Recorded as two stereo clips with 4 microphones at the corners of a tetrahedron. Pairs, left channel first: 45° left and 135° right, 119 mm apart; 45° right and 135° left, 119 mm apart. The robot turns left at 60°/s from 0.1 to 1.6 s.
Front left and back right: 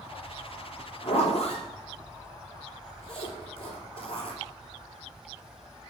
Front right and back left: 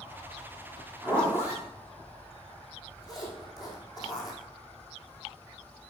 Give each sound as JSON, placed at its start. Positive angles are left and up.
{"t": 1.0, "sound": "a zipper", "azimuth_deg": 45, "distance_m": 2.5}